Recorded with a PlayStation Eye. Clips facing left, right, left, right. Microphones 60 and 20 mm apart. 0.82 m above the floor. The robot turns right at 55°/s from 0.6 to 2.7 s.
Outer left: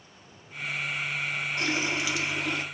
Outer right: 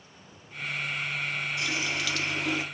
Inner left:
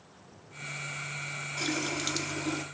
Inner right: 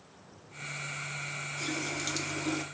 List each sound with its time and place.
1.6 s a running tap: 135° left, 0.6 m; by 2.6 s 170° right, 0.6 m